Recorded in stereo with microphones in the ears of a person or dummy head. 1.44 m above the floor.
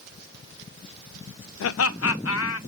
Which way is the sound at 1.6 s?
75° left (ahead or behind).